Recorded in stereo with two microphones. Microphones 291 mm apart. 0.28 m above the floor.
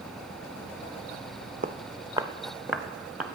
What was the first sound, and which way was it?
Footsteps, 30° right (ahead or behind).